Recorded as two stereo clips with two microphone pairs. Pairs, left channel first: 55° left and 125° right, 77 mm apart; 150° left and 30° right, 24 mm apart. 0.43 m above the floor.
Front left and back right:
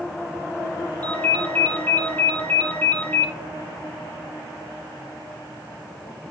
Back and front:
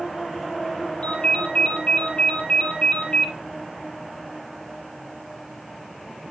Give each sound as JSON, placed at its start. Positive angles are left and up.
{"t": 1.0, "sound": "a ringtone", "azimuth_deg": 120, "distance_m": 6.0}